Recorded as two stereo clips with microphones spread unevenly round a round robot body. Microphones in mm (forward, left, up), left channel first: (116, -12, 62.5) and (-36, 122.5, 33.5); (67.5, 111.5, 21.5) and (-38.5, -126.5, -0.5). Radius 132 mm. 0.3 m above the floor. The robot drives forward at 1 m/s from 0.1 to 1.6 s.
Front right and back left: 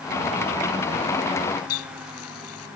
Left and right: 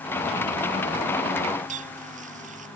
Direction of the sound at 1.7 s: 50° right.